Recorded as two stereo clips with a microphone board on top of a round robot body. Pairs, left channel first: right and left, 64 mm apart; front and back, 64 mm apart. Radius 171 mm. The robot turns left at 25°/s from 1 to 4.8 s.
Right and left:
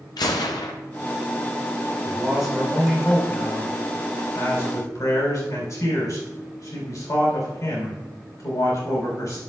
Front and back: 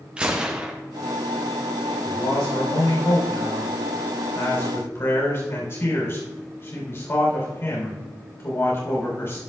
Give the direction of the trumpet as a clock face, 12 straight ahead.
No trumpet in this recording.